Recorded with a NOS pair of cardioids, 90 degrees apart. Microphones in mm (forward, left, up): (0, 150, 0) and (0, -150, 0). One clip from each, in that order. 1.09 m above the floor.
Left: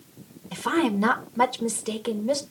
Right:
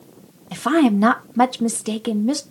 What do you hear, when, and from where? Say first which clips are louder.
0.5 s a woman speaking: right 6 dB; 40° right, 1.8 m